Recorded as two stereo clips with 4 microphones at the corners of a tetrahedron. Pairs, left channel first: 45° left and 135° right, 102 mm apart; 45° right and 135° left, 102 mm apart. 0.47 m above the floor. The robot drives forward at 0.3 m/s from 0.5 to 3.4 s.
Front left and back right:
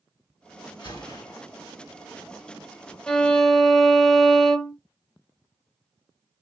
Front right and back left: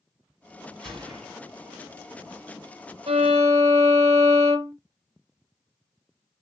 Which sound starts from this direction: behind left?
A violin, at 3.1 s.